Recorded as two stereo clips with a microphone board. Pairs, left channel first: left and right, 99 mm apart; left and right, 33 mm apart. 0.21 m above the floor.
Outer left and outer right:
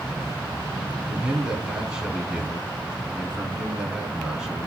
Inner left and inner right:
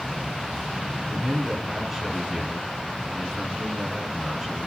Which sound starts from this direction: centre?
A man speaking, at 1.1 s.